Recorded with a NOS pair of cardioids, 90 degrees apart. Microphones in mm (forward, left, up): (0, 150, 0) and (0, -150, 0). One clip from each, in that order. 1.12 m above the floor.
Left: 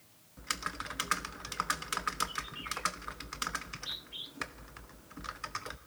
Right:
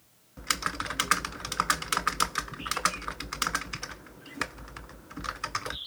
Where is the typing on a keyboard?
35° right, 0.5 m.